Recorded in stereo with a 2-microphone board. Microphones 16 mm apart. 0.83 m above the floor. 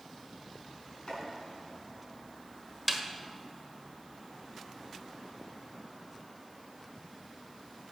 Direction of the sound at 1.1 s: 90° left.